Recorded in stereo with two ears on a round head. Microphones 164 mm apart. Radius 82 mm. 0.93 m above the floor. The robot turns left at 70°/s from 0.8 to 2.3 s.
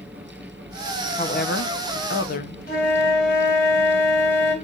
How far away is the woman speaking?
About 0.9 m.